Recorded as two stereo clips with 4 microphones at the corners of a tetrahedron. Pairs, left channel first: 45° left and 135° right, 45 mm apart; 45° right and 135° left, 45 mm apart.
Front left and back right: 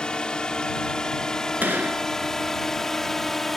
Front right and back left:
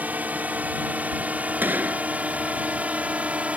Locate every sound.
0.0 s a drone: 105° left; by 3.6 s 125° left
1.6 s a gunshot: straight behind